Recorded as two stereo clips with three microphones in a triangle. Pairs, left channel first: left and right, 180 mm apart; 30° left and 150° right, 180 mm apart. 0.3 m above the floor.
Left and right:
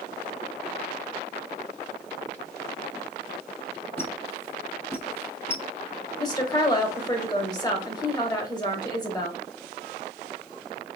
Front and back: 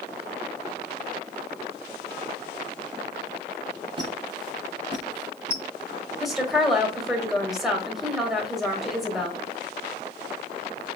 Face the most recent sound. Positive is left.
turn(degrees=125)